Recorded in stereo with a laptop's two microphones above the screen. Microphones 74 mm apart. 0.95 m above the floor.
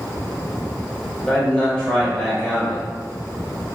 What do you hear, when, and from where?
1.2 s a man speaking: 15° left (ahead or behind), 1.4 m